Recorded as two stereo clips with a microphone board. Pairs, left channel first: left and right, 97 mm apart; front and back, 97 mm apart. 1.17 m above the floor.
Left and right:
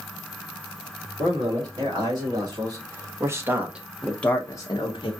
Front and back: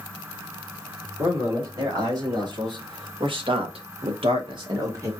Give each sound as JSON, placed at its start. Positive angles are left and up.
{"t": 1.2, "sound": "a man speaking", "azimuth_deg": -130, "distance_m": 2.5}